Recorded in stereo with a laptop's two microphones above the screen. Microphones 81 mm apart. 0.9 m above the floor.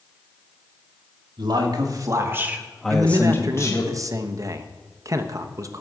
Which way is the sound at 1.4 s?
65° right (ahead or behind).